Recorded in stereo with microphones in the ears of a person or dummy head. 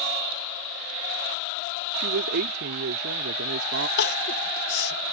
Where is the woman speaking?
70° right (ahead or behind).